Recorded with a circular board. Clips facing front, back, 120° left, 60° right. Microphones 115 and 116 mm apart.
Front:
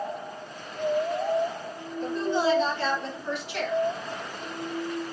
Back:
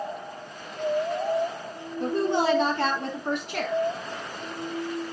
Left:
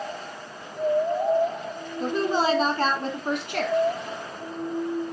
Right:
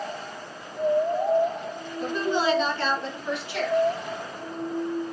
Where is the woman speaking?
175° left, 3.5 m; by 3.8 s 140° left, 3 m.